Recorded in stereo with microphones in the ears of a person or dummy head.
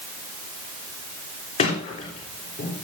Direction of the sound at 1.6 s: 35° left (ahead or behind).